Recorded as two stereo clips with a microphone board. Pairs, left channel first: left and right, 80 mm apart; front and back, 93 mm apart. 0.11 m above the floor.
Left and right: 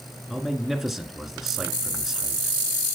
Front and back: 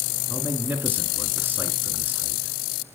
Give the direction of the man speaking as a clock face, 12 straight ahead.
6 o'clock.